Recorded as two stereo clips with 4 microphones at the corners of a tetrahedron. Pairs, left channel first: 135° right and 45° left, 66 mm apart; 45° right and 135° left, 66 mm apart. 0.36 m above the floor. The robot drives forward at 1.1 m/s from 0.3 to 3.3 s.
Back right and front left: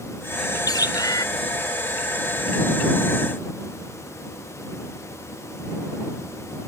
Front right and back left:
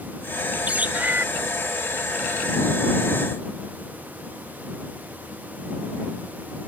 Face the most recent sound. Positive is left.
turn(degrees=-170)